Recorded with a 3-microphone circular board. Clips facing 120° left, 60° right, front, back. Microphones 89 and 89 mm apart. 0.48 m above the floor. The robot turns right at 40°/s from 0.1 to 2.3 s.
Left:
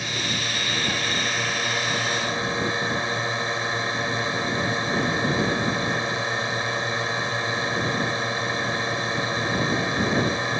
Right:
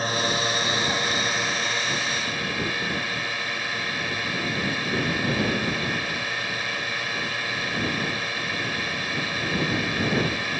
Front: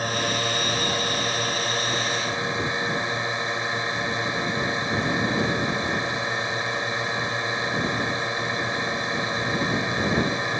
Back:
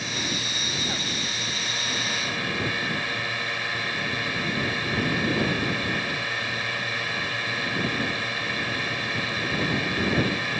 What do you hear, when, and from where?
0.0 s a drone: 25° right; by 10.6 s 60° left